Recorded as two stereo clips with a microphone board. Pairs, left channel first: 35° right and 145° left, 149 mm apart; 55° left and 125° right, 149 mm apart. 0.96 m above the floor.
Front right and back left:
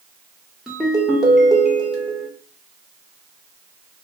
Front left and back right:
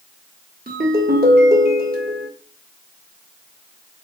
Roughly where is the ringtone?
Behind right.